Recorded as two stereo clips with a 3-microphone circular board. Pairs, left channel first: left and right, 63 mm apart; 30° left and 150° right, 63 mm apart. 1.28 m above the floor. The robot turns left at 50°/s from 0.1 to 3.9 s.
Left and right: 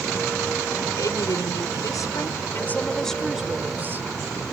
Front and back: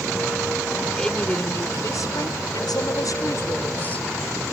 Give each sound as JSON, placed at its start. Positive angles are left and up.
{"t": 1.0, "sound": "a woman speaking", "azimuth_deg": 110}